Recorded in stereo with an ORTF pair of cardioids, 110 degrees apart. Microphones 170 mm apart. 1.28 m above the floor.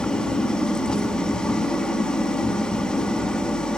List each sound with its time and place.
0.0 s an engine running: 5° left, 2.5 m